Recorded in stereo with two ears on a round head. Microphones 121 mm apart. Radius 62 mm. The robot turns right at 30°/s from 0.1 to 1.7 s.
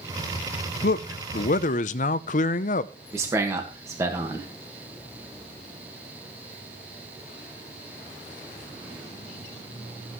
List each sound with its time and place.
0.8 s a man speaking: 75° left (ahead or behind), 0.6 m; by 2.9 s 60° left (ahead or behind), 0.6 m
3.1 s a man speaking: 20° right (ahead or behind), 1.6 m